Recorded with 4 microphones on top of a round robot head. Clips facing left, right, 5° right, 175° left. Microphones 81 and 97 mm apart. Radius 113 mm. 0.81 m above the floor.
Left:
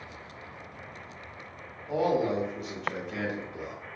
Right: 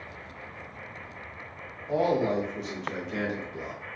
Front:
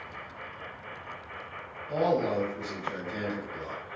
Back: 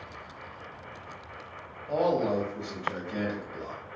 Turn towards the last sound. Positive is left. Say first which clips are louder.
# right 1 dB, back 1 dB
turn(degrees=175)